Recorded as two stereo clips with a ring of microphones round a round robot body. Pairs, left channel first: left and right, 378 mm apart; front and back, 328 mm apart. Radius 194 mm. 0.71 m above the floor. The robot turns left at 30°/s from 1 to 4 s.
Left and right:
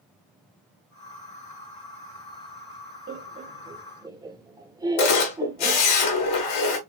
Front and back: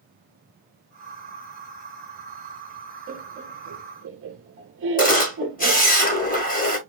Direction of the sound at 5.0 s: 65° left.